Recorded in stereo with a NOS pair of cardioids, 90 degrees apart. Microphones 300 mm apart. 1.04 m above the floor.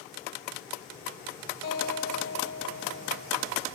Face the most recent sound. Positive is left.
turn(degrees=55)